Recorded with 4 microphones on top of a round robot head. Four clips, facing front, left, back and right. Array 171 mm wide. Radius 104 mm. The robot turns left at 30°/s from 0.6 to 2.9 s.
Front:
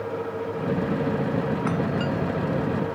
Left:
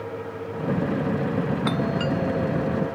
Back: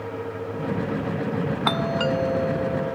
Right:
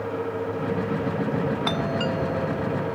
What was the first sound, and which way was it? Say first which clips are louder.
A doorbell: left 1 dB, back 2 dB; 165° right.